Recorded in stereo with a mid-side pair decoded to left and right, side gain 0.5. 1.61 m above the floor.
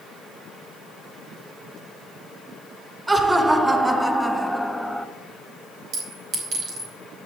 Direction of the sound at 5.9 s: 70° right.